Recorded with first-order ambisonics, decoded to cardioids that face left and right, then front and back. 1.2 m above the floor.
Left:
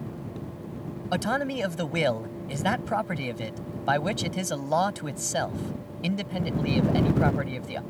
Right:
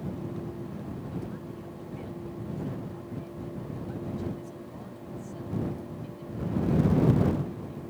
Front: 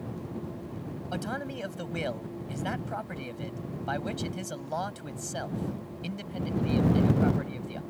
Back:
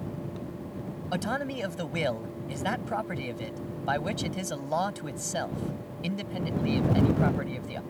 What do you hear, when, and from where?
1.1 s a man speaking: 105° left